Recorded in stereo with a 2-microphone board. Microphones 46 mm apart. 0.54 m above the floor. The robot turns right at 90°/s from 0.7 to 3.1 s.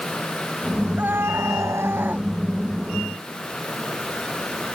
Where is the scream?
145° right; by 2.3 s 25° right.